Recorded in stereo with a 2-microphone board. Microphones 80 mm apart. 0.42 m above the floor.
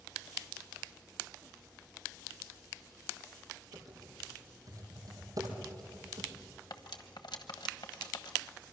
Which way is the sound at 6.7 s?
70° left (ahead or behind).